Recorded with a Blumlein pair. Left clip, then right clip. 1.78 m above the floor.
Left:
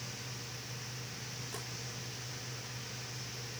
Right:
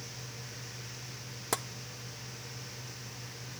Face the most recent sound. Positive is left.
turn(degrees=-50)